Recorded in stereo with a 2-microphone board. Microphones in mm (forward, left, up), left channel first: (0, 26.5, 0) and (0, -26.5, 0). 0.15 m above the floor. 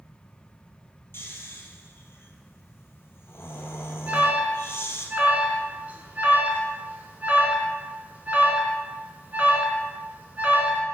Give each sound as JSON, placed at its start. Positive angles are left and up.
{"t": 1.1, "sound": "snoring", "side_deg": 50, "distance_m": 1.1}
{"t": 4.1, "sound": "an alarm", "side_deg": -30, "distance_m": 1.2}